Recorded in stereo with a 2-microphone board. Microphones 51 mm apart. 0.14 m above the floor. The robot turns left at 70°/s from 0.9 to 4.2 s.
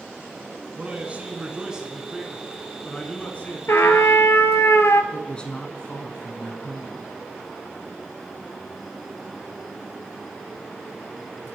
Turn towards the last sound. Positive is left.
turn(degrees=20)  # may be behind; listen again after turning